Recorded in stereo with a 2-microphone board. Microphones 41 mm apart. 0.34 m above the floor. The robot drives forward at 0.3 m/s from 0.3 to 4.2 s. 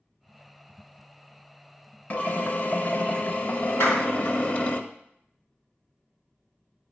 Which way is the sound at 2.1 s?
40° left (ahead or behind).